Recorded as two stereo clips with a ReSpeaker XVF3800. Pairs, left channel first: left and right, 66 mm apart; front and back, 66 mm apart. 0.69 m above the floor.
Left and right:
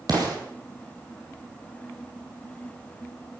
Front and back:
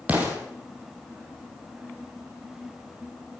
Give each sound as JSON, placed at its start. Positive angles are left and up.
{"t": 0.1, "sound": "an explosion", "azimuth_deg": -110, "distance_m": 4.0}